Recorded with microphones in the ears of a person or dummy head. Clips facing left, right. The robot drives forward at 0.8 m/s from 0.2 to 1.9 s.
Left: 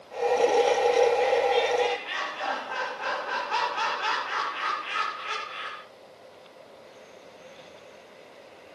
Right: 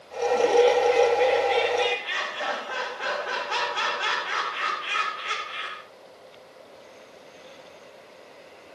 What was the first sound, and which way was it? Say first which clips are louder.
Laughter: right 4 dB; 55° right (ahead or behind).